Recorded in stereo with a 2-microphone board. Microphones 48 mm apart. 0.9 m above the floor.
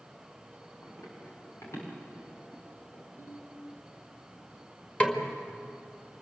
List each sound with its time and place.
0.8 s running footsteps: 80° left, 7.5 m; by 3.0 s 85° left, 9 m
3.2 s a ringtone: 55° left (ahead or behind), 5.5 m
5.0 s a snare drum: 30° left (ahead or behind), 2.0 m